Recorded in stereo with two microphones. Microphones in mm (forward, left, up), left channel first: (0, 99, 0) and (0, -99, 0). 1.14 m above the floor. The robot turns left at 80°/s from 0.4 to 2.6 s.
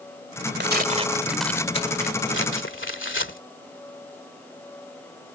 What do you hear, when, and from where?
0.6 s tearing paper: 115° right; by 3.4 s 85° left